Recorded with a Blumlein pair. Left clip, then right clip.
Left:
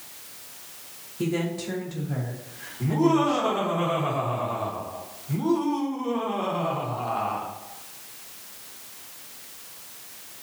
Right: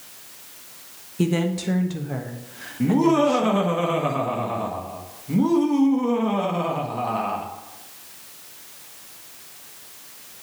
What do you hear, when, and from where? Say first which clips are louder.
1.2 s a woman speaking: right 4 dB; 45° right, 1.1 m
2.8 s laughter: right 3 dB; 35° right, 1.7 m